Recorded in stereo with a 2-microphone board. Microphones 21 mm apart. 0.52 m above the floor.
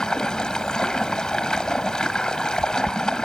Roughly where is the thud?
No thud in this recording.